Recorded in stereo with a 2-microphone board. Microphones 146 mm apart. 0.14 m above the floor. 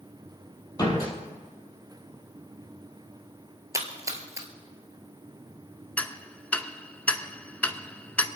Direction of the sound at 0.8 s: 25° left (ahead or behind).